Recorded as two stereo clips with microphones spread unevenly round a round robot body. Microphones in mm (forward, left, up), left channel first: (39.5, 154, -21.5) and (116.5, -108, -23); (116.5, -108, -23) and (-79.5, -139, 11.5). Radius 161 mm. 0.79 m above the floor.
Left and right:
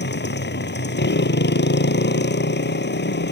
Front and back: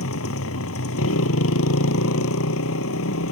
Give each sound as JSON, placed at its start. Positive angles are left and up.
{"t": 0.0, "sound": "a motorcycle", "azimuth_deg": 55}